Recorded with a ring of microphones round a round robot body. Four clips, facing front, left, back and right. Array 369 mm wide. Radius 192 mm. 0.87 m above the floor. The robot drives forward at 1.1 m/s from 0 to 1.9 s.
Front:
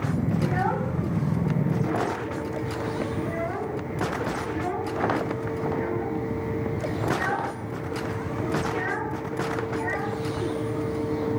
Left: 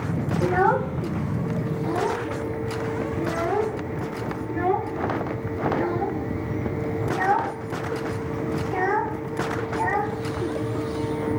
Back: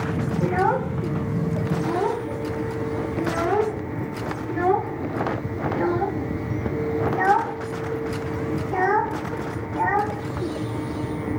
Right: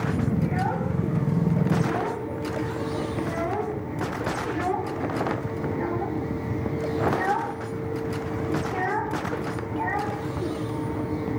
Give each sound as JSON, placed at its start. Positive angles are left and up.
{"t": 0.4, "sound": "a child speaking", "azimuth_deg": 115, "distance_m": 1.1}